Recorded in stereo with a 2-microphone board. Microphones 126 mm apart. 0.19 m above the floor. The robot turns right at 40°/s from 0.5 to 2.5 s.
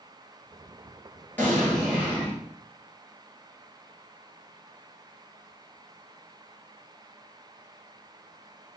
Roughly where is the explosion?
Behind.